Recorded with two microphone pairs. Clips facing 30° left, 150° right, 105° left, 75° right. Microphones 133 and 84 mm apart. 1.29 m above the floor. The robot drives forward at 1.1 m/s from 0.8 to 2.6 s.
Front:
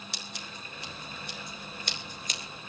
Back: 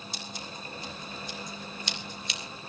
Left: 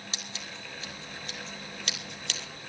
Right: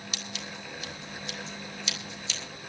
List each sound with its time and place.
0.1 s scissors: 50° left, 3.5 m; by 2.4 s 80° left, 2.5 m